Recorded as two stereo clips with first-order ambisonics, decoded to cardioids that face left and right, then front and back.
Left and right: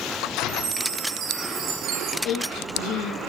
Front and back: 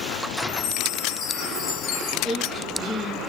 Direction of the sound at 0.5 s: 40° right.